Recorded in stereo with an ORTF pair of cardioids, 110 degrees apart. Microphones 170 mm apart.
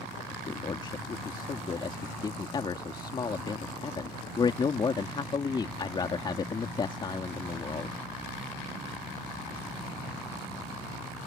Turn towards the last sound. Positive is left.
turn(degrees=30)